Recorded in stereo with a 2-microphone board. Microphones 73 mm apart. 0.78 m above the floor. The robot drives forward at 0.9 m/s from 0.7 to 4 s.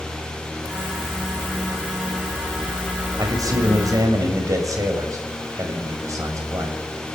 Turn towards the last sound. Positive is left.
turn(degrees=-50)  # may be behind; listen again after turning